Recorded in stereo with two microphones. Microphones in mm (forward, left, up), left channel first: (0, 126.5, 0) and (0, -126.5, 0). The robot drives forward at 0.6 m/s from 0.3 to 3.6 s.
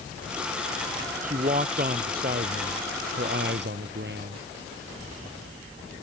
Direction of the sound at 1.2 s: 30° right (ahead or behind).